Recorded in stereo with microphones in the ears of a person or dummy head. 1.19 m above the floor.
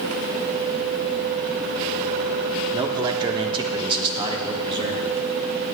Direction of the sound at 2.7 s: 25° right (ahead or behind).